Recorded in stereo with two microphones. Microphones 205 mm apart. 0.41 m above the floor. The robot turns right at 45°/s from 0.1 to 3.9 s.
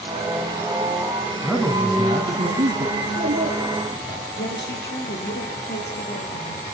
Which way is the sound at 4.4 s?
60° left (ahead or behind).